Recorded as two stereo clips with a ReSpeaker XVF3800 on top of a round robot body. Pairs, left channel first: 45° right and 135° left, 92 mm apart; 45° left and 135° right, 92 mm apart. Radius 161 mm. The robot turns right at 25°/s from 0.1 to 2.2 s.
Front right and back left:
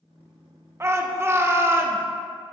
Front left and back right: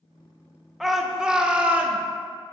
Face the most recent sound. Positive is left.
turn(degrees=175)